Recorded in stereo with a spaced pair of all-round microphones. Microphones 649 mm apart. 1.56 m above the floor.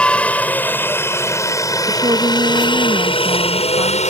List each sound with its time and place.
0.0 s a helicopter: centre (ahead or behind); by 4.1 s 10° left (ahead or behind)
1.9 s a woman speaking: 5° right (ahead or behind)